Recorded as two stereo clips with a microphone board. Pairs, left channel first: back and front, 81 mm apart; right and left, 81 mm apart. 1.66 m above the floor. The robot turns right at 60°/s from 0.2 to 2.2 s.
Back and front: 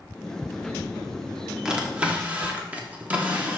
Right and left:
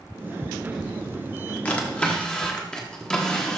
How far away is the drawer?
About 1.2 m.